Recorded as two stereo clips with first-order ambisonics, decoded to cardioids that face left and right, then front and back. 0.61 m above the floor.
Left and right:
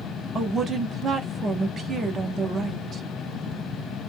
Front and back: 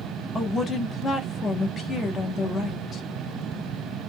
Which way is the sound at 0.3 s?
40° right.